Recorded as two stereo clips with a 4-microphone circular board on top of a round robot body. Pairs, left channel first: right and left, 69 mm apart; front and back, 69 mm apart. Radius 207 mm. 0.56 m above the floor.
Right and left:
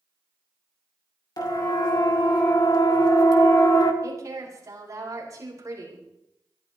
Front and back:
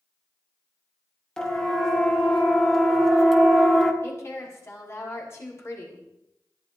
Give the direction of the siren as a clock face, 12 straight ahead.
3 o'clock.